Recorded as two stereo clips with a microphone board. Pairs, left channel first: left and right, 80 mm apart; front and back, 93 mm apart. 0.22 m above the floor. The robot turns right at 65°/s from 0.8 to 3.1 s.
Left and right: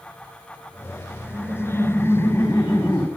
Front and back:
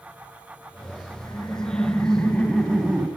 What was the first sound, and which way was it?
Laughter, 15° right.